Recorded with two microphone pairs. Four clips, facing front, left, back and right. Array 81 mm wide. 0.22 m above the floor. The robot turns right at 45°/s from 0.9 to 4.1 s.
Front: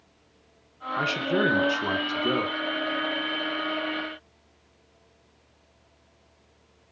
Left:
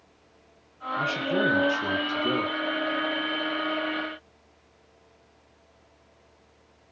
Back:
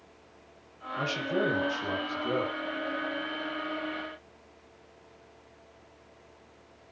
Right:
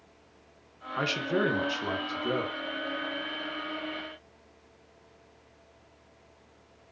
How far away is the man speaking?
About 3 m.